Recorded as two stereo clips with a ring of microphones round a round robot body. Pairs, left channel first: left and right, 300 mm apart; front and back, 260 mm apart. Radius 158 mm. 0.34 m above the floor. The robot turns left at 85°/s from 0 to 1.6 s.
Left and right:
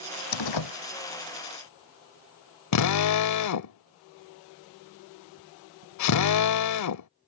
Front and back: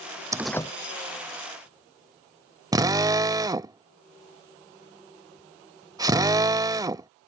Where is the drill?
105° left.